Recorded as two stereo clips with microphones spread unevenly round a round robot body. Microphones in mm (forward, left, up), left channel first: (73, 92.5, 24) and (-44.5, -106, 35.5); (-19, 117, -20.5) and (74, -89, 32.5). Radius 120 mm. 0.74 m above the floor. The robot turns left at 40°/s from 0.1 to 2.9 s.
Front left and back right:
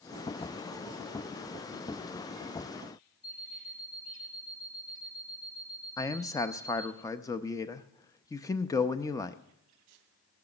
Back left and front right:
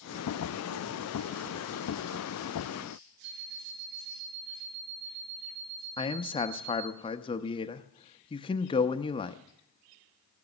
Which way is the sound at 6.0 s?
120° left.